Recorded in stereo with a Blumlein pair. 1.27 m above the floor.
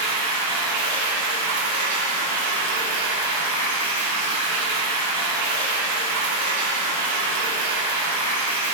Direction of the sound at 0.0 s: 55° right.